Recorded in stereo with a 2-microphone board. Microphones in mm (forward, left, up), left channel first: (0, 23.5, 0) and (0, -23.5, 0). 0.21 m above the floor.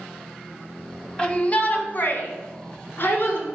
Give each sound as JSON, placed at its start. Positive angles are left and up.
{"t": 1.2, "sound": "a shout", "side_deg": 20, "distance_m": 1.0}